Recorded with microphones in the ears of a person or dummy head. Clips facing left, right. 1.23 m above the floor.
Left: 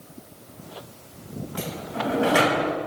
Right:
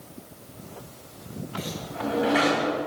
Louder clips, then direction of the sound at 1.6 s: Left 2 dB; 50° left (ahead or behind).